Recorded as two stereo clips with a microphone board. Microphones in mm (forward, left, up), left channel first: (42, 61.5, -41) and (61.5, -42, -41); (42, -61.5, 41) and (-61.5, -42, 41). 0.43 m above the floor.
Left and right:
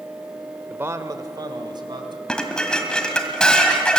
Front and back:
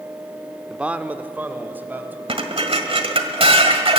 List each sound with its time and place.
0.7 s a man speaking: 125° right, 0.8 m; by 2.2 s 120° right, 2.5 m
2.3 s dishes clattering: straight behind, 1.7 m